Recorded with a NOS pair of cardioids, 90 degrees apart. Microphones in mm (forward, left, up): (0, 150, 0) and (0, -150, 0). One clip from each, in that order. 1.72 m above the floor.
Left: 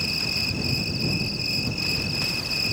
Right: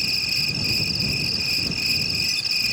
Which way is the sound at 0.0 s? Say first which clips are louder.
Right 3 dB; 55° right.